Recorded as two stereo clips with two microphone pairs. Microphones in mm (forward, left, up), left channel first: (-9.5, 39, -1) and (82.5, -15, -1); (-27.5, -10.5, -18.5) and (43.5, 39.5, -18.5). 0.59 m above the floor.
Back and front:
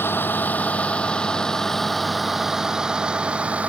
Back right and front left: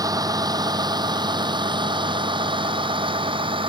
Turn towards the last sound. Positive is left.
turn(degrees=45)